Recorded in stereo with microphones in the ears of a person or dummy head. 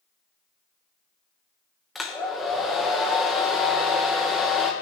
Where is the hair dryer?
5° left (ahead or behind), 0.9 m.